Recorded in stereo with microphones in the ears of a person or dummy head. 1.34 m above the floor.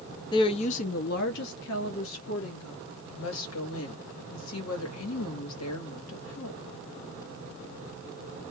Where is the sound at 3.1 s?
85° left, 1.6 m.